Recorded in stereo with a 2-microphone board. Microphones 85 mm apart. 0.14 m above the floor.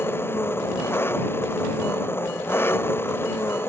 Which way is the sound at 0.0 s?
25° left (ahead or behind).